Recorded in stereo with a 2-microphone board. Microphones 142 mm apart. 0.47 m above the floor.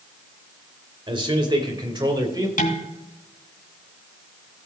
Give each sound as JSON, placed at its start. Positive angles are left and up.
{"t": 1.1, "sound": "a man speaking", "side_deg": -35, "distance_m": 2.5}
{"t": 2.6, "sound": "dishes clattering", "side_deg": 70, "distance_m": 3.5}